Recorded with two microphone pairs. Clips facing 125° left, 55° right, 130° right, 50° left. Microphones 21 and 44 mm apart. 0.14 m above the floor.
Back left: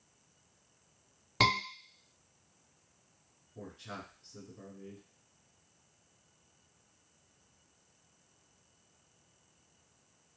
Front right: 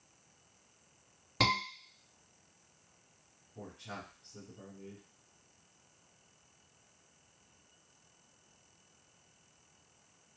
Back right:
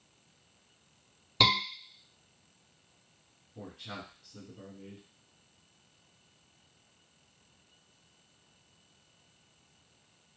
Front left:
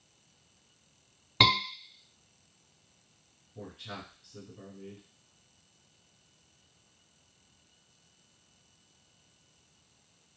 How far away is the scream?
About 1.4 m.